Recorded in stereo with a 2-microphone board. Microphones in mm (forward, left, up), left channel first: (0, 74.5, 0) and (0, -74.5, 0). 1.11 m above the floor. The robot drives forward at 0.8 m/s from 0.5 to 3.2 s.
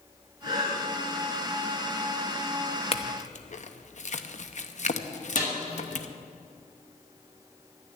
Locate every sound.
0.4 s breathing: 85° left, 4.5 m
2.9 s a clink: 40° left (ahead or behind), 0.9 m; by 6.1 s 50° left (ahead or behind), 0.8 m
5.4 s a snare drum: 80° left, 5 m